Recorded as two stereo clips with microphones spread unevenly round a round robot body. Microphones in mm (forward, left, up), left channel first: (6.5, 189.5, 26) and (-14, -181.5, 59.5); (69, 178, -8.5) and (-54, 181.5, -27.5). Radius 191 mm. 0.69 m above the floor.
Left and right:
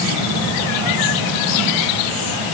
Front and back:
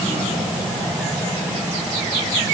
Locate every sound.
Only background noise.